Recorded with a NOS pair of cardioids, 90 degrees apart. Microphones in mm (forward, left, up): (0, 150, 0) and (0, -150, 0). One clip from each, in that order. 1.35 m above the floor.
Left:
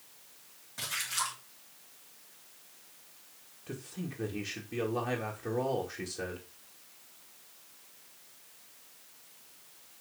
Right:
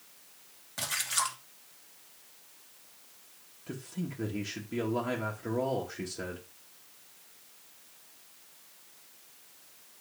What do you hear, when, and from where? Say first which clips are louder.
0.8 s a splash: right 2 dB; 40° right, 2.5 m
3.7 s a man speaking: right 2 dB; 15° right, 2.0 m